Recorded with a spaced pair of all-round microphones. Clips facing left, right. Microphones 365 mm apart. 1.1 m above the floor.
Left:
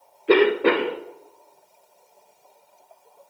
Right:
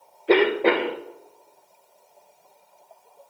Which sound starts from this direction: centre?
A cough, at 0.3 s.